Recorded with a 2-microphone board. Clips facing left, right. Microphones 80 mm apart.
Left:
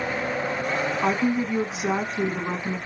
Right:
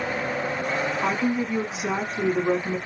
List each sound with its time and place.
1.0 s a woman speaking: 10° left (ahead or behind), 1.5 m